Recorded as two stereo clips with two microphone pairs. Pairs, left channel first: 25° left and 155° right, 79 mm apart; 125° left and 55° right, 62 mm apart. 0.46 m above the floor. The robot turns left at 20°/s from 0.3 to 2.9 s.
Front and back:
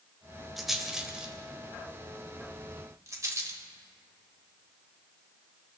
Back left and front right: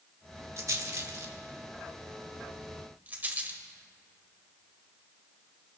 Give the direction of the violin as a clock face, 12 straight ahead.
No violin in this recording.